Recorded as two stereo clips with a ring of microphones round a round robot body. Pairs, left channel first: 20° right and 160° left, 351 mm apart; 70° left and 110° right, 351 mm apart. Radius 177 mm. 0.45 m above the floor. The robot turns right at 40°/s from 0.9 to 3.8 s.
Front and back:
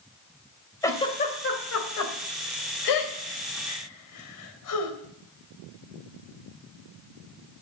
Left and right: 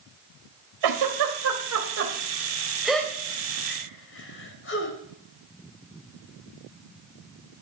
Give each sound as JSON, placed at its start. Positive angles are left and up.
{"t": 0.8, "sound": "a giggle", "azimuth_deg": -105, "distance_m": 2.5}